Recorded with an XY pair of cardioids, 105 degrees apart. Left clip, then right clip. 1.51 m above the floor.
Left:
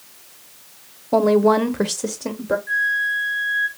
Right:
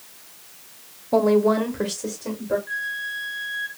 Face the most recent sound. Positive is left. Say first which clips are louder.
# left 8 dB
turn(degrees=35)